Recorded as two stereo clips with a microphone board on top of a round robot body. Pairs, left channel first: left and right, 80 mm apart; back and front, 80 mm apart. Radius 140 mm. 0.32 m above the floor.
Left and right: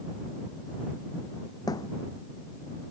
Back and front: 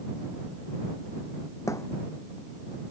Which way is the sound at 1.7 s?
130° left.